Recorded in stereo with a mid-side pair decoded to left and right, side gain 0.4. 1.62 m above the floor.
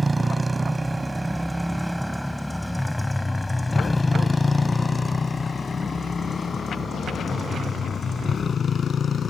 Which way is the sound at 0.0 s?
30° right.